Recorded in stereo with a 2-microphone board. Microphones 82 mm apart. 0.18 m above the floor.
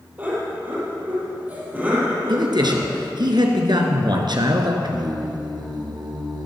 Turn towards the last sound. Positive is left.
turn(degrees=-60)  # may be behind; listen again after turning